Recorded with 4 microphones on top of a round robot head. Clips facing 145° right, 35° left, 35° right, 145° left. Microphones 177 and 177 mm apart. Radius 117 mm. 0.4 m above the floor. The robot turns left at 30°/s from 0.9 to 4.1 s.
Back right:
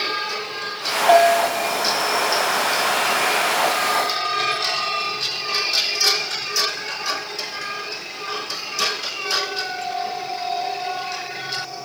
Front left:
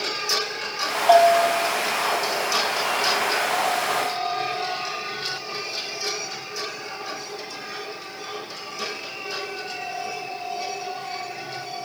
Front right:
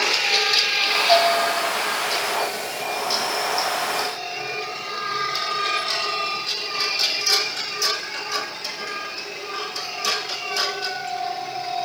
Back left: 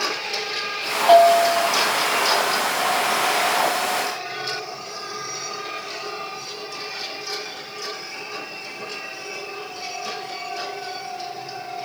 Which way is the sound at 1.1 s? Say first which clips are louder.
Back right 1 dB, back left 6 dB; 135° left.